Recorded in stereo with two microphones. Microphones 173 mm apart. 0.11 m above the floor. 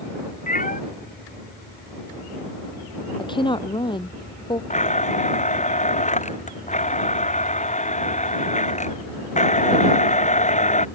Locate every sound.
0.5 s a cat meowing: 50° left (ahead or behind)
3.2 s a woman speaking: 30° left (ahead or behind)
4.7 s a blender: 45° left (ahead or behind)